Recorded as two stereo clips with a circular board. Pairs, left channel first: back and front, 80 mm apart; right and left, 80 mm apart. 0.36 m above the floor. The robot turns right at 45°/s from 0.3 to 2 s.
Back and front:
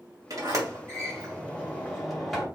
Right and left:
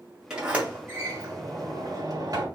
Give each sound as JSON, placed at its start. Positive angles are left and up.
{"t": 0.3, "sound": "a sliding door", "azimuth_deg": 15, "distance_m": 2.0}